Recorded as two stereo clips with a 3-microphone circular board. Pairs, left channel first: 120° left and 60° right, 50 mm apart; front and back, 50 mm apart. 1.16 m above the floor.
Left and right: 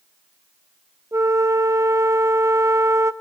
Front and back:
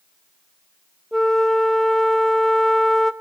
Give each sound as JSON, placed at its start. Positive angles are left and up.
{"t": 1.1, "sound": "a flute", "azimuth_deg": -85, "distance_m": 0.7}